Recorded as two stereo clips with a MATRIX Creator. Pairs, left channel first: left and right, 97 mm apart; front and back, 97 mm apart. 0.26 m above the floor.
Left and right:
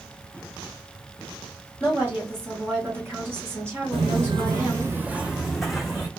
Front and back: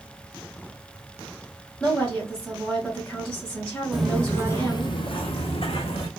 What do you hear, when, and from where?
1.8 s a woman speaking: 70° right, 1.6 m
3.9 s footsteps: 90° right, 0.5 m; by 6.1 s 5° left, 1.1 m